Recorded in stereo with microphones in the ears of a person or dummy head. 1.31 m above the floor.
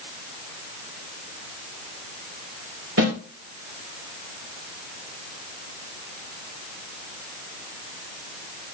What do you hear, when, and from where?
3.0 s a snare drum: 60° right (ahead or behind), 2.5 m